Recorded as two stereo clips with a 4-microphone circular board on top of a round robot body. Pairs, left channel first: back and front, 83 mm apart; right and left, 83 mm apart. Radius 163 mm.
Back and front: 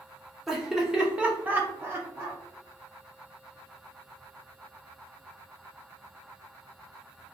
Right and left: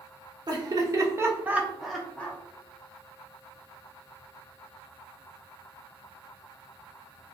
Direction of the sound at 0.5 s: 85° left.